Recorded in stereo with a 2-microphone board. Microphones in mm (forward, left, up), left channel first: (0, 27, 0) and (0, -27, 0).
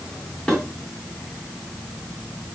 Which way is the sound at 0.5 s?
10° left (ahead or behind).